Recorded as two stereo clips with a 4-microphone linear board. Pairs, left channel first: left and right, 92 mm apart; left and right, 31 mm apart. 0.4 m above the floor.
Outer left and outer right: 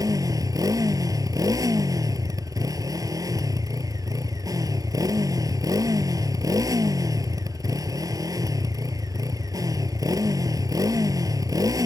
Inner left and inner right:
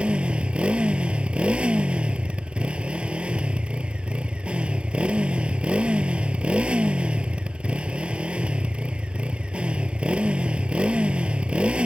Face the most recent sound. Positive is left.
turn(degrees=-40)  # may be behind; listen again after turning